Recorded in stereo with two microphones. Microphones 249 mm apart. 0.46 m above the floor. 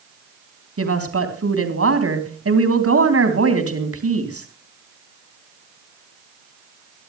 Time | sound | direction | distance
0.8 | a woman speaking | 70° right (ahead or behind) | 3.5 m